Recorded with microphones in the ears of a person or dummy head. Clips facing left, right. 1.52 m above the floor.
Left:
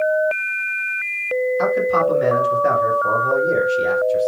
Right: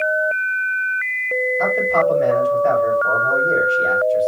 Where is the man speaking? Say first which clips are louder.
Right 2 dB; 75° left (ahead or behind), 9 m.